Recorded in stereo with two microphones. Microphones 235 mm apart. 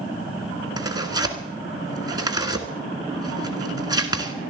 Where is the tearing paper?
15° right (ahead or behind), 1.6 m.